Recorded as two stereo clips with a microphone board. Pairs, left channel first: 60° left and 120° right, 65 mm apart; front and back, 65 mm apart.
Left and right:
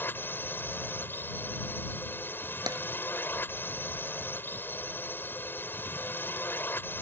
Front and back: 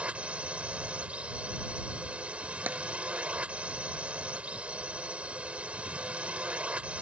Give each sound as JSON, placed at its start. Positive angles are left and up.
{"t": 0.0, "sound": "a drone", "azimuth_deg": 115}
{"t": 2.7, "sound": "tapping", "azimuth_deg": -115}